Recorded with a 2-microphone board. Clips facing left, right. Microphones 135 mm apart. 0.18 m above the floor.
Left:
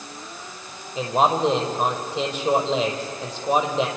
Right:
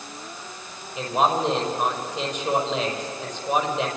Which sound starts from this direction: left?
A man speaking, at 0.9 s.